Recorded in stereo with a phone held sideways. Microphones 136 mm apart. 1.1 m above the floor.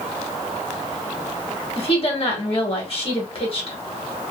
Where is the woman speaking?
45° left (ahead or behind), 1.2 m.